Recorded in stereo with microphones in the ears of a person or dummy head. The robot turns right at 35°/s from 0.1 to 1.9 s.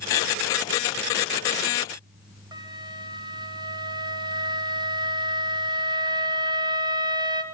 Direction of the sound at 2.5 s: 25° right (ahead or behind).